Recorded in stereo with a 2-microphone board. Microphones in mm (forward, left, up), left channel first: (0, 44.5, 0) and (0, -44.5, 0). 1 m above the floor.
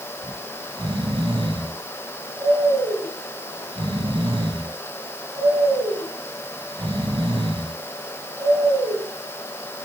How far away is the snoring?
About 3.5 m.